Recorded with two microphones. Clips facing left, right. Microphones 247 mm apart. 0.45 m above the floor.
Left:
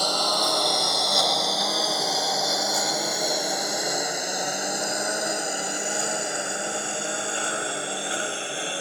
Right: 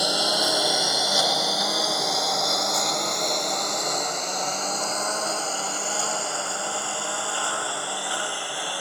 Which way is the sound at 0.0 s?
10° right (ahead or behind).